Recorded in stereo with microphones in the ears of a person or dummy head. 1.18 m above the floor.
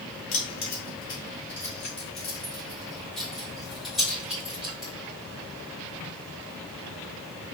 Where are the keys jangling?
35° left (ahead or behind), 1.0 m; by 4.9 s centre (ahead or behind), 3.5 m.